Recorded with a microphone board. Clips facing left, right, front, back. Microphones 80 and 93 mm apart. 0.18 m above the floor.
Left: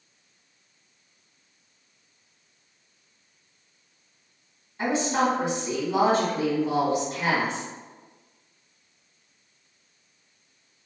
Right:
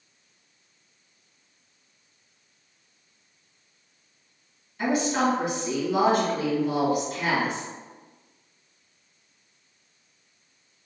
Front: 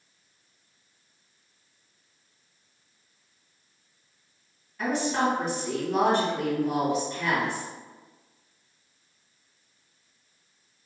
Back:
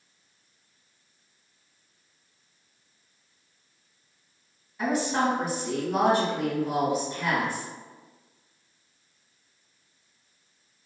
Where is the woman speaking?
110° left, 1.8 m.